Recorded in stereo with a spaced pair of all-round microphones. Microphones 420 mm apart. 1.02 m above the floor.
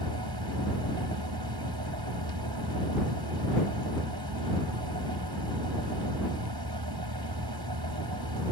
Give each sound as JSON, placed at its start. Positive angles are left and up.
{"t": 0.0, "sound": "a fan", "side_deg": -65}